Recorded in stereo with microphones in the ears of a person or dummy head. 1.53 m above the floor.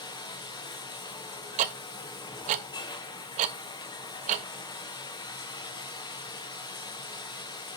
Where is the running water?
20° left (ahead or behind), 0.8 m.